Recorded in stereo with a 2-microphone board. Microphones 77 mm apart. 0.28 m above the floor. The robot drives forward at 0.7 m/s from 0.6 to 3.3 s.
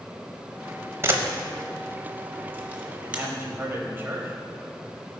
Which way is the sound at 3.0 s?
25° right (ahead or behind).